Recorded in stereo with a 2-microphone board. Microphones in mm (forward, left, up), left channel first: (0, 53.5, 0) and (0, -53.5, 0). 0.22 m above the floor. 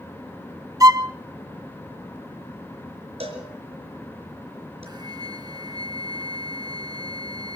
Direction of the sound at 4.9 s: 40° right (ahead or behind).